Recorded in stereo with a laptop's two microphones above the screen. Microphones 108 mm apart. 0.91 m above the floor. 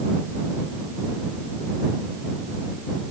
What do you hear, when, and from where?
Only background noise.